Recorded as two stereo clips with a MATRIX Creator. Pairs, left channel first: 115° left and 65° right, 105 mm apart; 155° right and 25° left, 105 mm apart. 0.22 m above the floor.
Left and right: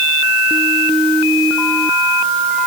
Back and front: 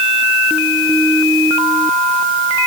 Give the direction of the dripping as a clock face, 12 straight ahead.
No dripping in this recording.